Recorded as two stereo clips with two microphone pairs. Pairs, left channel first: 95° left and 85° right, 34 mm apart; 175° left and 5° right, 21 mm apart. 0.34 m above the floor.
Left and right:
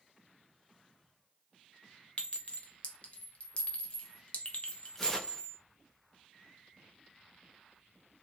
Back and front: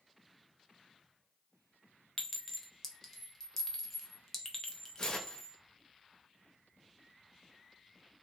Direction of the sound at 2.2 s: 110° left.